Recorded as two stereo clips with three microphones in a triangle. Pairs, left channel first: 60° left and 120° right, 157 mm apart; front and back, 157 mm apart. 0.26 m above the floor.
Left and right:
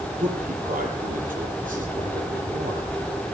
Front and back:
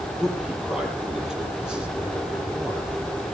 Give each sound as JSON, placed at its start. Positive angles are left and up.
{"t": 0.2, "sound": "a man speaking", "azimuth_deg": -95, "distance_m": 8.0}